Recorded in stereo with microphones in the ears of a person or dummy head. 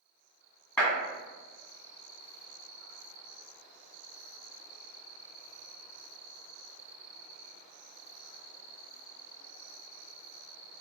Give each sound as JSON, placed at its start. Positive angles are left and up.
{"t": 0.8, "sound": "a clap", "side_deg": 15, "distance_m": 1.6}